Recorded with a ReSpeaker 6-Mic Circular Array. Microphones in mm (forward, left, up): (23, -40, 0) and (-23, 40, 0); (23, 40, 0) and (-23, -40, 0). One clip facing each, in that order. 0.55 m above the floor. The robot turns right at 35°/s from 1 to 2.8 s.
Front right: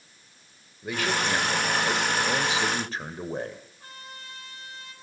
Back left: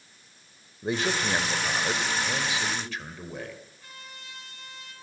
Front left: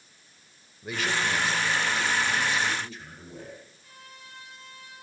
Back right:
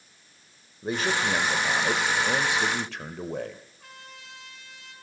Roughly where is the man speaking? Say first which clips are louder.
Even, back right 2 dB; behind.